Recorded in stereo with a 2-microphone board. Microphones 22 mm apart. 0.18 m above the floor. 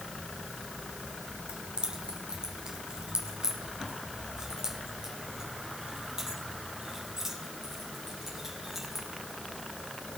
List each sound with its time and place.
1.5 s keys jangling: 50° right (ahead or behind), 1.9 m; by 9.1 s 15° right (ahead or behind), 5.5 m